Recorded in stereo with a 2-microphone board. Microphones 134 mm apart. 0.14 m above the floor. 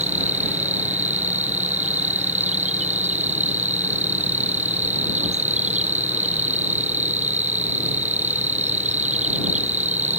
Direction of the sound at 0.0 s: 60° right (ahead or behind).